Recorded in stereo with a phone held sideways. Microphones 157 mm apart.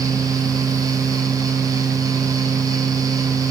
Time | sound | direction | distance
0.0 | a fan | 20° right (ahead or behind) | 0.8 m